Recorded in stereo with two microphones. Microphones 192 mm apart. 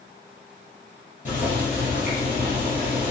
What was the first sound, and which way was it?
Boiling, 40° left (ahead or behind).